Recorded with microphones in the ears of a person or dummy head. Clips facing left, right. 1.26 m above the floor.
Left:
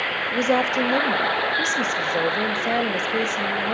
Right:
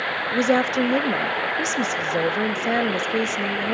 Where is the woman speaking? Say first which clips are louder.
Right 1 dB; 15° right (ahead or behind), 0.5 m.